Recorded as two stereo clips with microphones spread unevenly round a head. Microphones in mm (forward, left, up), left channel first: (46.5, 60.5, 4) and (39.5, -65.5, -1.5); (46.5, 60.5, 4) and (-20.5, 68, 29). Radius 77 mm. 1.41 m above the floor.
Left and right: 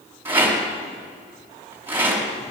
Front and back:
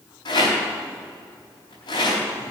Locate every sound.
0.2 s a rattle: 20° right, 4 m